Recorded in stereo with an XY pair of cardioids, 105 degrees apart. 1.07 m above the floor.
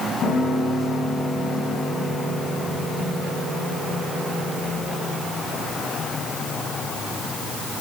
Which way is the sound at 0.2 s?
60° left.